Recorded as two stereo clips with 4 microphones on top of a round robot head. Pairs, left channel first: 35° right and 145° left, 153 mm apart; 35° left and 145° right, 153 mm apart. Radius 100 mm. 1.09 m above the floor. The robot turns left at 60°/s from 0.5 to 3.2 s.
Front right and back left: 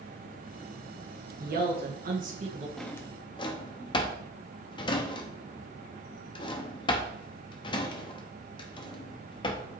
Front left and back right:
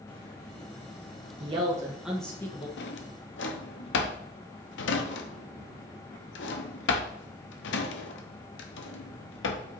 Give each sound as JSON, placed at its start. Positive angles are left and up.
{"t": 1.4, "sound": "a man speaking", "azimuth_deg": 170, "distance_m": 1.4}
{"t": 2.8, "sound": "a drawer", "azimuth_deg": 55, "distance_m": 0.8}